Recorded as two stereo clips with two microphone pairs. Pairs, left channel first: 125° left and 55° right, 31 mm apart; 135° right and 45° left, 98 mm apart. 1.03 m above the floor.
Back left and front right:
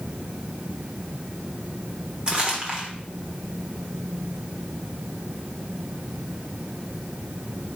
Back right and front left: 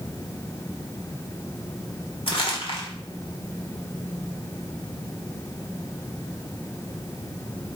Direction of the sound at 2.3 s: 120° right.